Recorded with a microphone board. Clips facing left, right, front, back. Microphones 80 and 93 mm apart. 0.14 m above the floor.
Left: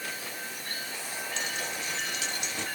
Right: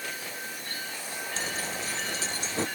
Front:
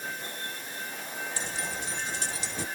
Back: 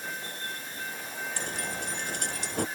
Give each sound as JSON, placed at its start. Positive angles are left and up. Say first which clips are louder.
{"t": 1.4, "sound": "keys jangling", "louder": "right 2 dB, back 1 dB", "azimuth_deg": -145}